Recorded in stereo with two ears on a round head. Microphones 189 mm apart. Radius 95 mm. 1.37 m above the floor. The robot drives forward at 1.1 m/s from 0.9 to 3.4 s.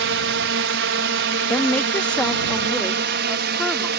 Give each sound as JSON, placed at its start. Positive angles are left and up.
{"t": 0.0, "sound": "a drone", "side_deg": -65}
{"t": 1.5, "sound": "a woman speaking", "side_deg": 10}